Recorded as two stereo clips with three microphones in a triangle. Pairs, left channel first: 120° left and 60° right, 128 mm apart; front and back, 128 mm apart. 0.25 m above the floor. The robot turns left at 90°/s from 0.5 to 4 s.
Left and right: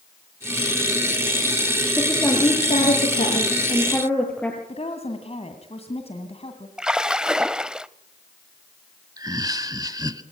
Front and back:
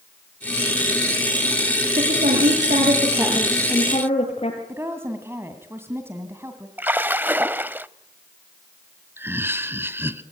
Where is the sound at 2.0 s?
135° right, 5 m; by 4.6 s 40° left, 5 m.